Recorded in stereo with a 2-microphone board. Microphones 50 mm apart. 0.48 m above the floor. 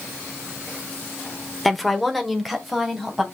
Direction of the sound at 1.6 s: Centre (ahead or behind).